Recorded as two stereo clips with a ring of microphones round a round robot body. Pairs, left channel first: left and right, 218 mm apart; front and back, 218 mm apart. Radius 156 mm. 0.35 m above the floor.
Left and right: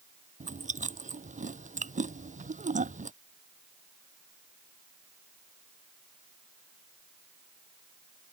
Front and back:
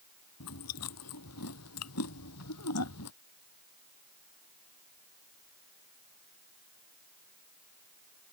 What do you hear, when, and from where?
0.4 s chewing: 35° right